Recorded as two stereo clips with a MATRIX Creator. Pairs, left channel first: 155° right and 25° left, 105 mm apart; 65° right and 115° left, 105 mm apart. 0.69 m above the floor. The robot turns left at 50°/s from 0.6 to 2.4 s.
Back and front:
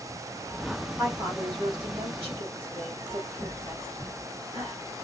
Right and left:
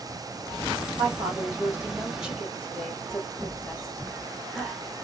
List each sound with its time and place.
1.0 s a woman speaking: 90° left, 1.9 m; by 4.8 s 20° left, 1.9 m